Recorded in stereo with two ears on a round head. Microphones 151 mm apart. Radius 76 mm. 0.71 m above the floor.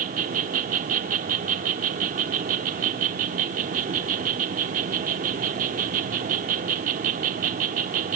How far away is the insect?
About 1.0 m.